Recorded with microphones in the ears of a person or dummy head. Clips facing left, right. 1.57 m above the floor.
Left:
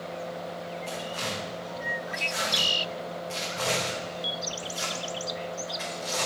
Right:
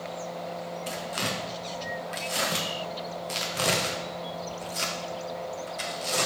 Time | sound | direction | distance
0.9 | tearing paper | 35° right (ahead or behind) | 0.8 m